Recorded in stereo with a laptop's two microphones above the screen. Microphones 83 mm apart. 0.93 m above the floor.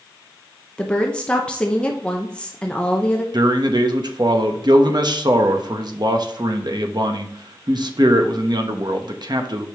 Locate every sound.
0.8 s a woman speaking: 10° left (ahead or behind), 0.7 m
3.3 s a man speaking: 60° right (ahead or behind), 0.9 m